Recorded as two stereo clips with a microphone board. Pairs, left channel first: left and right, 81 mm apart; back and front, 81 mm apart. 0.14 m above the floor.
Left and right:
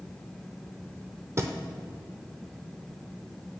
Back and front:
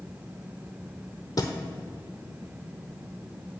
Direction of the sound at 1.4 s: 145° right.